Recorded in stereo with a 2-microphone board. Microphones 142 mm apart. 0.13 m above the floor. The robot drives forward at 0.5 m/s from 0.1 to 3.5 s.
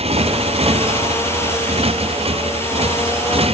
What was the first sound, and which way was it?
A motorcycle, 45° right (ahead or behind).